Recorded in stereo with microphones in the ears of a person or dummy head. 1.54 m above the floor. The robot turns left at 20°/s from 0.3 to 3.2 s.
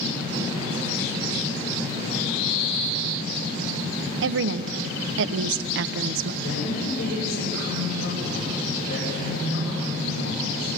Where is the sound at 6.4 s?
65° left (ahead or behind), 9.5 m.